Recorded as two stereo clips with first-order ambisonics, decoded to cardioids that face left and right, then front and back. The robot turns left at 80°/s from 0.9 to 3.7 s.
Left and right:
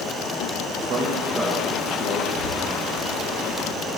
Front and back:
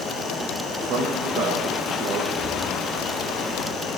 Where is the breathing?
115° left, 1.0 m; by 3.8 s 10° left, 1.0 m.